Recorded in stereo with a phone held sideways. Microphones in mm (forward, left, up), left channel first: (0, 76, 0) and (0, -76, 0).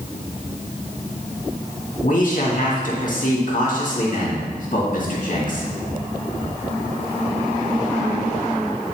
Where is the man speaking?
60° left (ahead or behind), 1.8 m.